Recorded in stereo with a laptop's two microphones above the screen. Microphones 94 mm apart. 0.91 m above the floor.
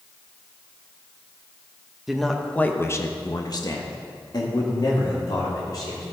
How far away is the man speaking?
About 1.1 m.